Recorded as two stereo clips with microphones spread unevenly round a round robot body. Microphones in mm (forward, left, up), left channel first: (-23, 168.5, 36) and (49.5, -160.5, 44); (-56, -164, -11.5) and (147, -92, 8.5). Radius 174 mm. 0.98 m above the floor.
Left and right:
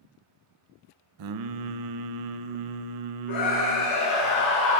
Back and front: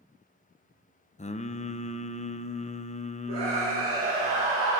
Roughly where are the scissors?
I don't hear scissors.